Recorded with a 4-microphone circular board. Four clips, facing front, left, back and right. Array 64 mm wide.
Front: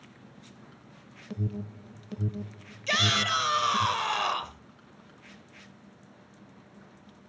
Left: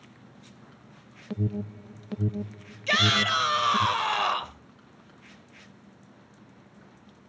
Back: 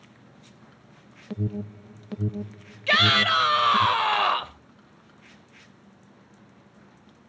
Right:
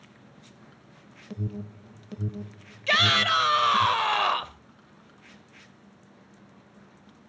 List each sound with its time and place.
1.3 s an alarm: 135° left, 0.9 m
2.9 s a shout: 155° right, 1.1 m